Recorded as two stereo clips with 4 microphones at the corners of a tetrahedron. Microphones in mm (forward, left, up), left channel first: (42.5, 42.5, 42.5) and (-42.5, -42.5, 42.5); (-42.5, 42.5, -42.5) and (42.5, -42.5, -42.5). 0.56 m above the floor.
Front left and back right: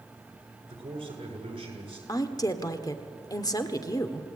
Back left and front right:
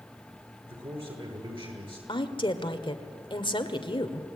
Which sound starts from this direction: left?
A woman speaking, at 2.1 s.